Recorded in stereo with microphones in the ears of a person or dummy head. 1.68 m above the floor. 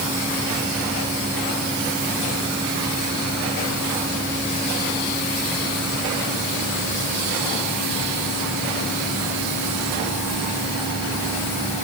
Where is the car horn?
I don't hear a car horn.